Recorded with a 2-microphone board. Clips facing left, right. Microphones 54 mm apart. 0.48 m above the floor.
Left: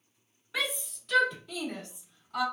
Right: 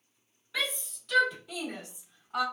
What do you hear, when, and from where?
0.5 s a shout: 15° left (ahead or behind), 1.4 m; by 2.5 s 30° right (ahead or behind), 1.2 m